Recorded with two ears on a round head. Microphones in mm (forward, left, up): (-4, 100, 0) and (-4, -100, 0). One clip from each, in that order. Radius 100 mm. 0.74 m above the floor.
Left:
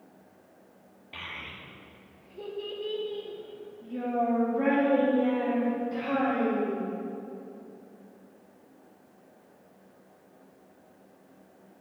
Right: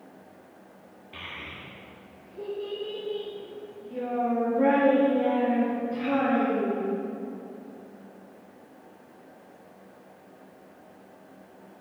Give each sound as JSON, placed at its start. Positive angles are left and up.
{"t": 1.1, "sound": "a child speaking", "side_deg": 25, "distance_m": 0.8}